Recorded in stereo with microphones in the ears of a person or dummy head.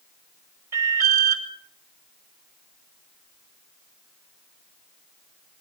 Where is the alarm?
15° right (ahead or behind), 5.5 m.